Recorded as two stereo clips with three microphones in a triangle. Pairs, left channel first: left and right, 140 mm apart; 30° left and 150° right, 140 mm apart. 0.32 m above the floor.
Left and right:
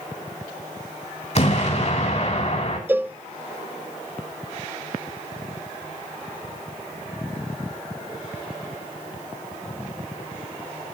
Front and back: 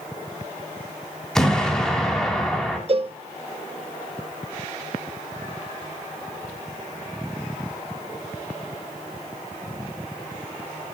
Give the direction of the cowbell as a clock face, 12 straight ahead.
5 o'clock.